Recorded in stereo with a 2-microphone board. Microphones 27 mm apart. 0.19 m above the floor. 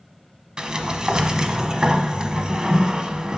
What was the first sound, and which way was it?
A sliding door, 25° right (ahead or behind).